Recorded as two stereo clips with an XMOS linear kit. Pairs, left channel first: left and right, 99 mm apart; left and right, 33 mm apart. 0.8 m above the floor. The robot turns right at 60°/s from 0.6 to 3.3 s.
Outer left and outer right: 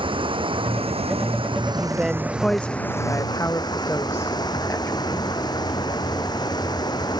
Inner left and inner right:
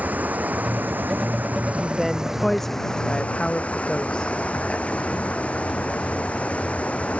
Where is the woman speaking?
15° right (ahead or behind); by 5.3 s 25° left (ahead or behind).